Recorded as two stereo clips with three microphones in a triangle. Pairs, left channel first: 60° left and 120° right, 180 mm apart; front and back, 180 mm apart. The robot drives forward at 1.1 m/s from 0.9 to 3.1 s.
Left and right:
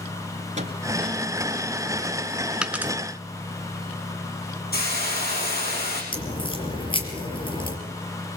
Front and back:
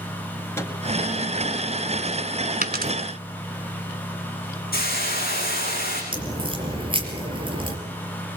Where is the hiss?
30° left, 6.5 m.